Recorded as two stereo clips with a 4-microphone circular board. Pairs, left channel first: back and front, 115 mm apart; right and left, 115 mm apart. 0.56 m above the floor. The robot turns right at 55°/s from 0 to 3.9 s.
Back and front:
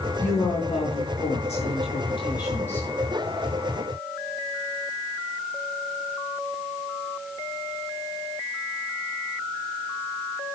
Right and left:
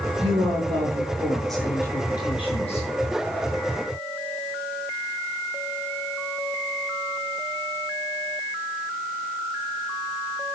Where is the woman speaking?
110° left, 7.5 m; by 2.9 s 105° right, 7.5 m.